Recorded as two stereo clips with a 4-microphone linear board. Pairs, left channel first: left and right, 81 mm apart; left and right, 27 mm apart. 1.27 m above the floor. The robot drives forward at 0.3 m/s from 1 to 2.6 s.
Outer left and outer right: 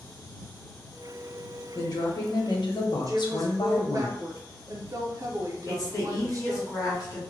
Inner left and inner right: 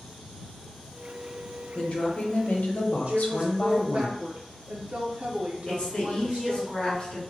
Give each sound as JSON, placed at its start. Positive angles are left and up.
{"t": 1.8, "sound": "a woman speaking", "side_deg": 45, "distance_m": 0.8}
{"t": 3.1, "sound": "a woman speaking", "side_deg": -45, "distance_m": 0.5}
{"t": 5.7, "sound": "a woman speaking", "side_deg": 45, "distance_m": 1.1}